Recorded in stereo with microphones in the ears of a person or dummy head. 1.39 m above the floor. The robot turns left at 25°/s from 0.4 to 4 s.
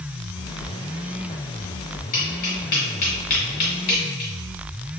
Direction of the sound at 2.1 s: 35° left (ahead or behind).